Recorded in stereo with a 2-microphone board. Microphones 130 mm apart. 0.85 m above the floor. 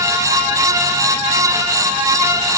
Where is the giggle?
I don't hear a giggle.